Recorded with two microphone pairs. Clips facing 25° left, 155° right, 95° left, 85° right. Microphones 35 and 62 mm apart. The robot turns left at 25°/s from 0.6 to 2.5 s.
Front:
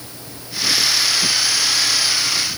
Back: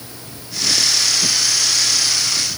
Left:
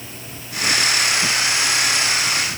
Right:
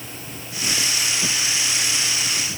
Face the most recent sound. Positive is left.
No sound to turn to.